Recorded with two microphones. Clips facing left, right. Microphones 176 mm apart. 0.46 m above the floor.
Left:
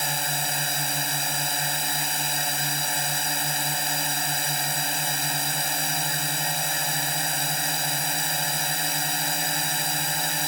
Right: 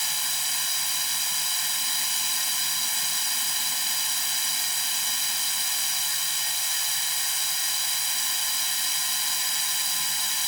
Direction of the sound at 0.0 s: 60° left (ahead or behind).